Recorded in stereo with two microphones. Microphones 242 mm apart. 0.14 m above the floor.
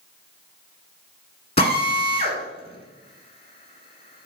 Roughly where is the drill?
Left.